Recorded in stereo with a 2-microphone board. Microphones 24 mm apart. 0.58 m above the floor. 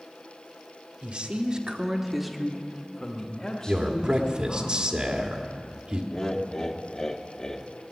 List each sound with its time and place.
1.0 s a man speaking: 50° right (ahead or behind), 1.4 m; by 4.7 s 45° left (ahead or behind), 3 m
3.7 s a man speaking: 35° right (ahead or behind), 1.6 m
6.1 s laughter: 30° left (ahead or behind), 0.9 m